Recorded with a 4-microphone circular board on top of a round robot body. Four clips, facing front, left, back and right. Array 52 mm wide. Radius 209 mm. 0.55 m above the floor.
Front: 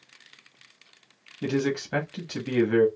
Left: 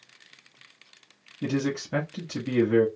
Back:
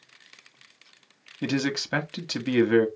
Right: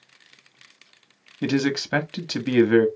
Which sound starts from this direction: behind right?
A man speaking, at 1.4 s.